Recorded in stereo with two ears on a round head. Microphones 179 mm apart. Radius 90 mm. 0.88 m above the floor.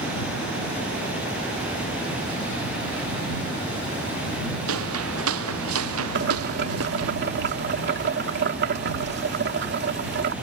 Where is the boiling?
55° right (ahead or behind).